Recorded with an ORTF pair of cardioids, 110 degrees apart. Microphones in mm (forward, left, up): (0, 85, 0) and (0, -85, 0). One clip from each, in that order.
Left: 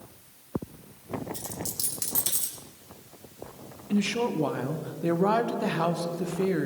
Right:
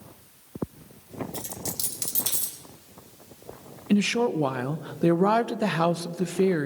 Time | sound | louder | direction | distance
1.3 | a dropped coin | right 1 dB | 5° right | 3.5 m
3.9 | a woman speaking | right 4 dB | 45° right | 0.7 m